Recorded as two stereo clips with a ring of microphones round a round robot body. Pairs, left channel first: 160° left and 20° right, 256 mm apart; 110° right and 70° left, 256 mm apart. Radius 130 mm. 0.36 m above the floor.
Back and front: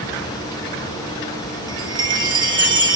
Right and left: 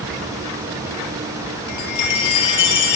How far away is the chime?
About 8 m.